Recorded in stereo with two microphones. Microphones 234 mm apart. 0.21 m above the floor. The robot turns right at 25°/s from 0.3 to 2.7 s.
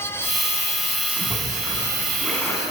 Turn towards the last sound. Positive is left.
turn(degrees=15)